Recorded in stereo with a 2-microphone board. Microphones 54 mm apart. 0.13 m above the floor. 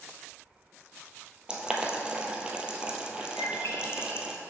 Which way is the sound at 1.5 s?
20° right (ahead or behind).